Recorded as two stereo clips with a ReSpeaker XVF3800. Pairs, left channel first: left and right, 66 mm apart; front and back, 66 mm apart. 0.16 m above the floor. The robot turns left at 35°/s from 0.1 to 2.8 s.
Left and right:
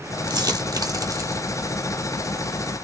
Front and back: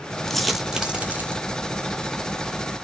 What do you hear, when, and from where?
0.3 s a dropped coin: 85° right, 0.9 m; by 1.4 s 125° right, 0.9 m